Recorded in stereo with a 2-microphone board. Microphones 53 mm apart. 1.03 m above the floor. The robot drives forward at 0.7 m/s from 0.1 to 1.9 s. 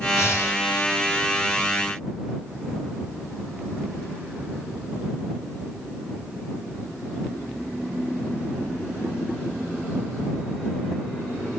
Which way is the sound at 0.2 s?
65° left (ahead or behind).